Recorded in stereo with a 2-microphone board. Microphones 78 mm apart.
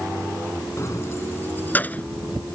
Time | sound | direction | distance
0.8 | keys jangling | 40° left (ahead or behind) | ?